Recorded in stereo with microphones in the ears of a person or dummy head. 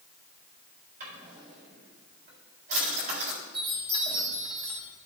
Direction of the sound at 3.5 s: 30° right (ahead or behind).